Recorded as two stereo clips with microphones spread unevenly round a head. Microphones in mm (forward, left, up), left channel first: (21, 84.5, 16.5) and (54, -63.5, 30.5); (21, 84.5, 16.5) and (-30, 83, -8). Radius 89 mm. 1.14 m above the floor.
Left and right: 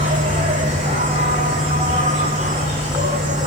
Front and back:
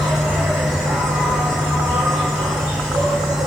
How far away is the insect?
About 6 m.